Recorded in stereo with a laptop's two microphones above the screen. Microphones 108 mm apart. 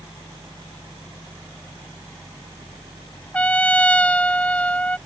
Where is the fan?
15° left (ahead or behind).